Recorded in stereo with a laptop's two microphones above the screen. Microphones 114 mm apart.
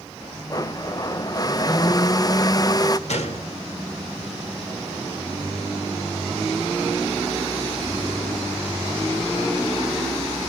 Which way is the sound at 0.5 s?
35° left (ahead or behind).